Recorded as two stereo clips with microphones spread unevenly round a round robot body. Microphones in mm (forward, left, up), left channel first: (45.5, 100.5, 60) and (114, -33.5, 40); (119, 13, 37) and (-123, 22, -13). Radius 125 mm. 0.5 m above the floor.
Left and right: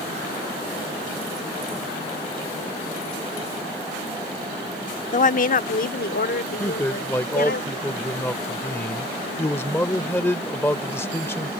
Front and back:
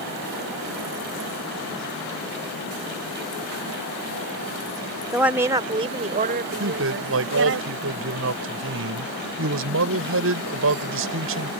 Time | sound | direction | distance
5.1 | a woman speaking | 100° left | ?
6.6 | a man speaking | 165° right | ?